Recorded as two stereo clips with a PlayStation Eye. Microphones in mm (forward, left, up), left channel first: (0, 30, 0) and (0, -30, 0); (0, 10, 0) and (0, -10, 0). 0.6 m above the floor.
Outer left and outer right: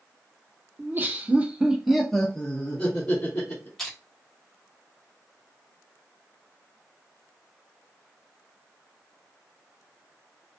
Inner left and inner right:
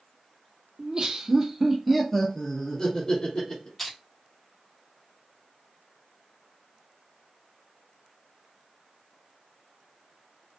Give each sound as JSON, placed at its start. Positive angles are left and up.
{"t": 0.8, "sound": "laughter", "side_deg": -35, "distance_m": 0.7}
{"t": 3.8, "sound": "crushing", "side_deg": 5, "distance_m": 1.4}